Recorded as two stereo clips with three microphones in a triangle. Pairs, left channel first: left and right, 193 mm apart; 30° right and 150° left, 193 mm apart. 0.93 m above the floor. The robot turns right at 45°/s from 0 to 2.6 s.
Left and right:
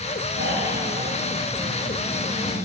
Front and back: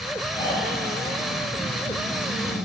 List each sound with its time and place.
0.3 s snoring: 100° right, 6 m; by 2.6 s straight ahead, 6 m